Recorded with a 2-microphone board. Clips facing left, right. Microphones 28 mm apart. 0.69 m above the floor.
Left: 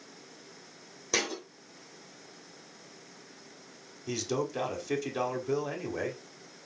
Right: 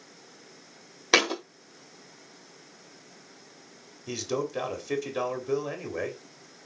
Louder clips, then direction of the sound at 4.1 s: Right 1 dB; 5° right (ahead or behind).